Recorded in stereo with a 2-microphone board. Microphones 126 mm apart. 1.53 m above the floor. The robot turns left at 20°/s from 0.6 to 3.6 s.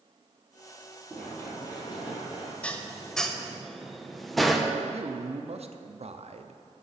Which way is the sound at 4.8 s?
55° right (ahead or behind).